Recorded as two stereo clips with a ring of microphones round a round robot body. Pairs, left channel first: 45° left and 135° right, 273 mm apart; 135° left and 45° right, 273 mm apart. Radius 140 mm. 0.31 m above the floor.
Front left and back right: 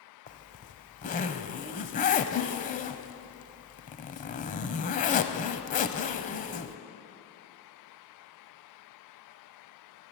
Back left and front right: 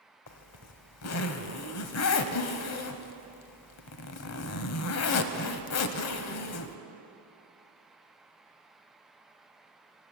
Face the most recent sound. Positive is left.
turn(degrees=105)